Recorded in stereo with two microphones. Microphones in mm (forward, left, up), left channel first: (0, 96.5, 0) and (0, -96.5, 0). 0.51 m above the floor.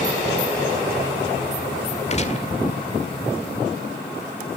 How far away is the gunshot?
About 1.9 m.